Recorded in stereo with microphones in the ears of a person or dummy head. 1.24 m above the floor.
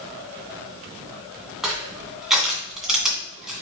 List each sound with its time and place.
1.6 s crushing: centre (ahead or behind), 2 m